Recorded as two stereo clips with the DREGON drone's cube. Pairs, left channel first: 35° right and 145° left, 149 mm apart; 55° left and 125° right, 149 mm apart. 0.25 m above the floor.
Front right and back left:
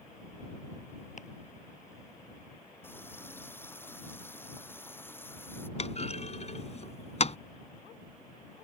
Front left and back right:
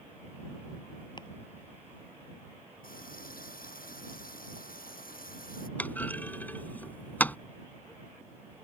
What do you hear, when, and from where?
1.2 s chopping: 5° right
2.8 s a running tap: 40° left
5.8 s a clunk: 20° right